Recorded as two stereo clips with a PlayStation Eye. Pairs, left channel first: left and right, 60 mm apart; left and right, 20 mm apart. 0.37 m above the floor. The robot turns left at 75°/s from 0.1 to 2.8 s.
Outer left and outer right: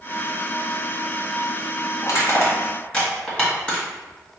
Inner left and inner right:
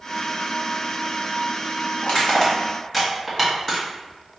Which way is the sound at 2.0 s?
70° left (ahead or behind).